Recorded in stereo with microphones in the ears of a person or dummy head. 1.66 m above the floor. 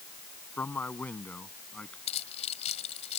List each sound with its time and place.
0.6 s a man speaking: 10° left (ahead or behind); by 2.0 s 5° left (ahead or behind)
2.1 s keys jangling: 35° left (ahead or behind)